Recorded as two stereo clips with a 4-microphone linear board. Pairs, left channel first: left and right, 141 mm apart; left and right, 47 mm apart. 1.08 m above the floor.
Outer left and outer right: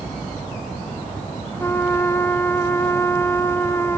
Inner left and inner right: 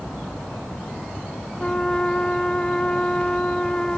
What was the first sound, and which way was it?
A trumpet, 20° left (ahead or behind).